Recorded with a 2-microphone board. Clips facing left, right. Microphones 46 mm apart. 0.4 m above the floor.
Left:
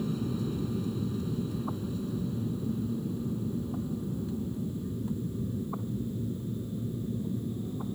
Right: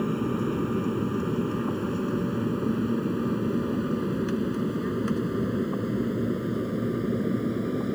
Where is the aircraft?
45° right (ahead or behind); by 8.0 s 75° right (ahead or behind).